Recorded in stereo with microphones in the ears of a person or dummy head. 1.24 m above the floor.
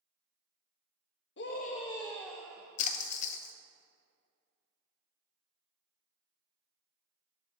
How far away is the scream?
About 1.0 m.